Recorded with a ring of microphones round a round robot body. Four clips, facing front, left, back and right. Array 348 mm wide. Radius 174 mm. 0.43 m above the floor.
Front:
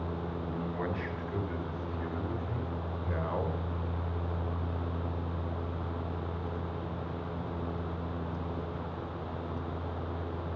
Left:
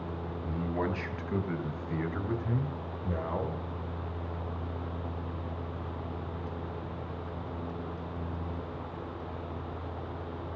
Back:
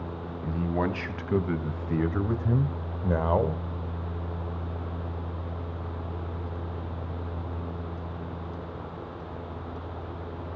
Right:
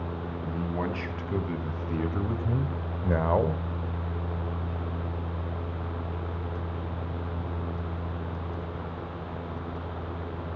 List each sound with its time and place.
0.4 s a man speaking: straight behind, 3 m; by 3.6 s 120° right, 1.3 m